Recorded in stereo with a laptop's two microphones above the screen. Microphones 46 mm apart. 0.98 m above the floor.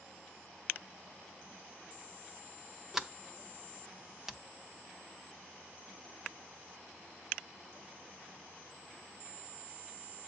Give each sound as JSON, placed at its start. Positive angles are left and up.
{"t": 2.9, "sound": "a sliding door", "side_deg": -5, "distance_m": 0.6}